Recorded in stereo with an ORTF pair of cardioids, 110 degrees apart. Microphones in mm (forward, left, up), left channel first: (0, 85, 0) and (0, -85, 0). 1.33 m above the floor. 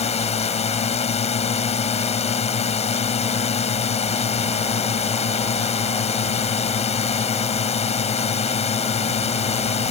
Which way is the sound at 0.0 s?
40° left.